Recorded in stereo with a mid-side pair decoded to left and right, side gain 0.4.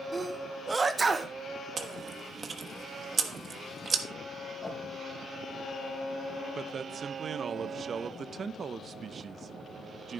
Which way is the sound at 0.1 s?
35° right.